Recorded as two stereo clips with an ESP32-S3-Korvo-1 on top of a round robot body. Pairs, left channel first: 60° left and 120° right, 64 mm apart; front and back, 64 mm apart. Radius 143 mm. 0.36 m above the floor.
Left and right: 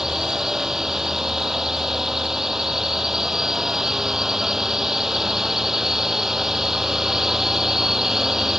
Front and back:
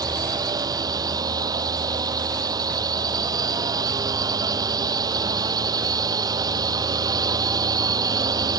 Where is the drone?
155° left.